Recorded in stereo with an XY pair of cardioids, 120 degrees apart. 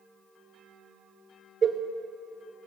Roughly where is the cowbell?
Ahead right.